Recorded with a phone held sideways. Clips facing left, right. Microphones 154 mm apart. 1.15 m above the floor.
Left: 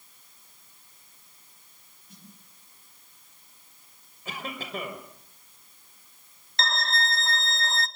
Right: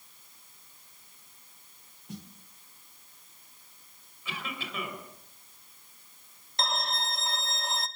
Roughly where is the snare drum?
Right.